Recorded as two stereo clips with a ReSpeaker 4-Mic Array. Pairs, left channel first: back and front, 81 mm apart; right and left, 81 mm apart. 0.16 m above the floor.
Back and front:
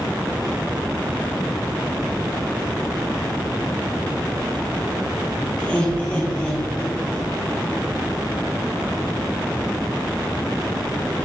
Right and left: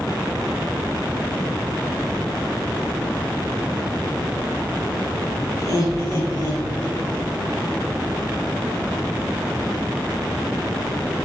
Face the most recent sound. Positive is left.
turn(degrees=-115)